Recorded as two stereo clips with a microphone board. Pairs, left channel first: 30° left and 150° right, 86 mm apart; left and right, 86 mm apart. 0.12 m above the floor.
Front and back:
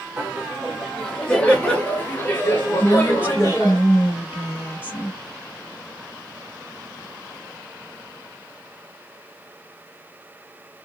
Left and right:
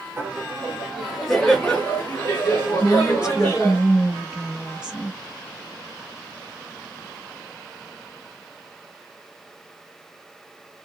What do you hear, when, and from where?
0.2 s laughter: 90° right, 1.4 m; by 3.8 s 55° left, 2.0 m
2.8 s a woman speaking: 150° right, 1.1 m